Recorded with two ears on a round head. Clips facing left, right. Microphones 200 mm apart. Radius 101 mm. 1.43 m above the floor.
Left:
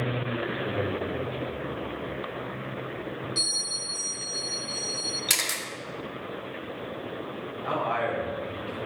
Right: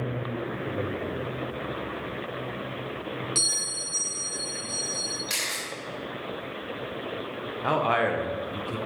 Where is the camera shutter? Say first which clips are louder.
Left 1 dB; 75° left (ahead or behind), 1.4 m.